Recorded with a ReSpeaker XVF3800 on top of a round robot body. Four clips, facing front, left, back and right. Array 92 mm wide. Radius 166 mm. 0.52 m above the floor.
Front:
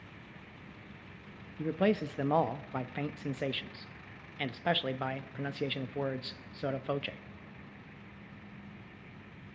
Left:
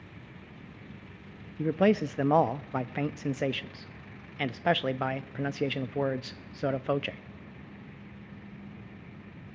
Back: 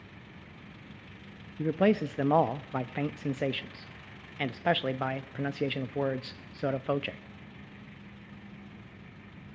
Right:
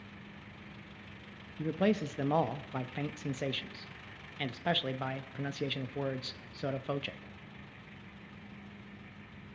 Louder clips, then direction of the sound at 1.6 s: Left 6 dB, back 4 dB; 120° left.